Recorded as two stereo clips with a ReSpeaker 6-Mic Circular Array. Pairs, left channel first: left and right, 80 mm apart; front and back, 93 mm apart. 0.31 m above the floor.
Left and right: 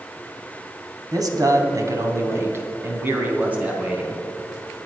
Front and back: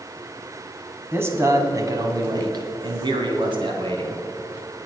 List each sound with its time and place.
1.1 s a man speaking: 120° right, 2.5 m; by 4.2 s 165° right, 3 m